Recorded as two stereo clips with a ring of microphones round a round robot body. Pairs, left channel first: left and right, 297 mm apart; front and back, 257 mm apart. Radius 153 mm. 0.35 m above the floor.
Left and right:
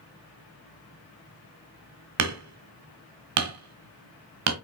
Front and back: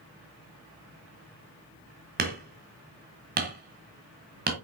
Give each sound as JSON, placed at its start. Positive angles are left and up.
{"t": 2.2, "sound": "hammering", "azimuth_deg": -120, "distance_m": 1.3}